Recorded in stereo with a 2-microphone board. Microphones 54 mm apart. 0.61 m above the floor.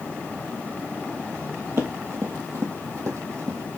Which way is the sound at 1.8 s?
50° right (ahead or behind).